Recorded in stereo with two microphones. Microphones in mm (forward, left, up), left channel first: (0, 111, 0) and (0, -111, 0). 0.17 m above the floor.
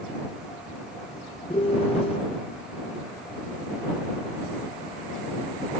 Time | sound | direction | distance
1.5 | a piano | 30° left (ahead or behind) | ?